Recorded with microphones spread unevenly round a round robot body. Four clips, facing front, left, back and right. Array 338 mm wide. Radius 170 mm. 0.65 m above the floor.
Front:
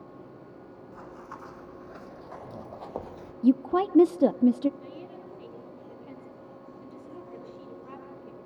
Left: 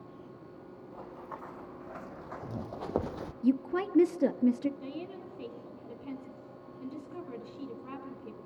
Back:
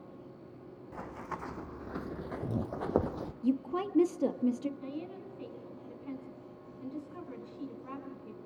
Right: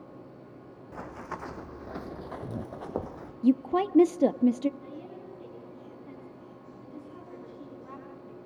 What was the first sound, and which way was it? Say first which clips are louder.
Running footsteps: right 6 dB, back 3 dB; 120° right.